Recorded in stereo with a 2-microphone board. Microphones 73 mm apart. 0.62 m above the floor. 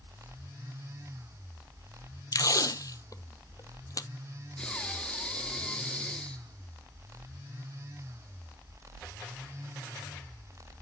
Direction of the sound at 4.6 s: 15° left (ahead or behind).